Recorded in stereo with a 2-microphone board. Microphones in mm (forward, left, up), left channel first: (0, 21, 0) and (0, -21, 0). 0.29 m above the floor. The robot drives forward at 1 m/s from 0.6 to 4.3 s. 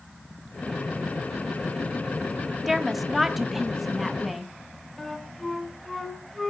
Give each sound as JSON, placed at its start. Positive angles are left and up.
{"t": 2.7, "sound": "a woman speaking", "side_deg": -5, "distance_m": 1.0}
{"t": 5.0, "sound": "a flute", "side_deg": 5, "distance_m": 2.5}